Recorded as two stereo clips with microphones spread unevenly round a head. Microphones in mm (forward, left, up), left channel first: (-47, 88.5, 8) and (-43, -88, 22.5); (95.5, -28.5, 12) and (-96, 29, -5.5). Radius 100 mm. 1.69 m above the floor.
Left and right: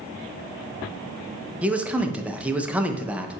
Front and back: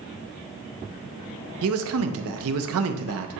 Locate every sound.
1.6 s a man speaking: 175° right, 0.5 m